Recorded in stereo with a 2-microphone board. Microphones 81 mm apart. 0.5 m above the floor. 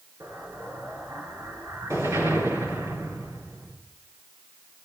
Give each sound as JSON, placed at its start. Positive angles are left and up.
{"t": 0.2, "sound": "an explosion", "side_deg": -40, "distance_m": 5.5}